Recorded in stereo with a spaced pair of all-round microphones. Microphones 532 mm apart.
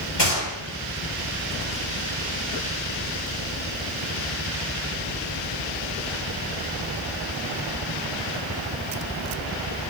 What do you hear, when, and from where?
0.2 s a gunshot: 50° left (ahead or behind), 4 m